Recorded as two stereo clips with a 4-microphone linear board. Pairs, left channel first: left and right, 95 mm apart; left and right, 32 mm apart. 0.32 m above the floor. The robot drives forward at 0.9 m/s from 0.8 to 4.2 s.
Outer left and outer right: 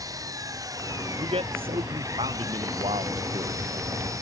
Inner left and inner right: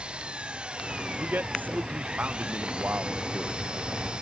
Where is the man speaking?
80° right; by 4.0 s 70° right (ahead or behind).